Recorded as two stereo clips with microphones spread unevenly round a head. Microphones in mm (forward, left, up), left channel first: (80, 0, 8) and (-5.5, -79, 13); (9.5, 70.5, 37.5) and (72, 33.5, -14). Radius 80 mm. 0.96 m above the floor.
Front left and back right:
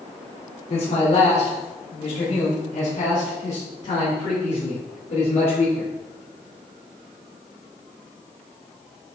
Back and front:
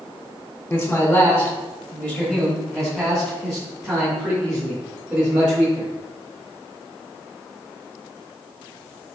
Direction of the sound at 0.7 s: 50° left.